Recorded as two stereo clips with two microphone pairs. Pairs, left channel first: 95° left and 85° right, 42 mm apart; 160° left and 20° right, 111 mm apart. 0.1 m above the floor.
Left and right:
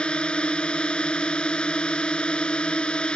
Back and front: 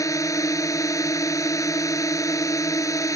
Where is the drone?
140° left.